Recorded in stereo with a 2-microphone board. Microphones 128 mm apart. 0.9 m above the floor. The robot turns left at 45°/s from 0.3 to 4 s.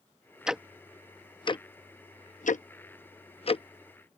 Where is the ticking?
5° right (ahead or behind); by 3.6 s 45° left (ahead or behind).